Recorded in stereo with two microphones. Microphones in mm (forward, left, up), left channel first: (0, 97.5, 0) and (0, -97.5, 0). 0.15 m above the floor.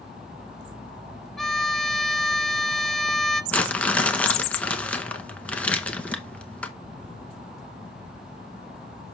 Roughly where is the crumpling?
Centre.